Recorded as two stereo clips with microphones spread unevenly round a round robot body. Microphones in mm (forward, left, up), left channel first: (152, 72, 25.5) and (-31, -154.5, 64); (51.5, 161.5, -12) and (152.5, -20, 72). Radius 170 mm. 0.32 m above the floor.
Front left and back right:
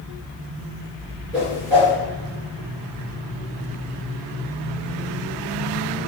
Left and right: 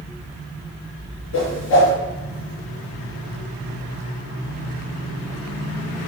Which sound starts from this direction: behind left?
A whoosh, at 1.3 s.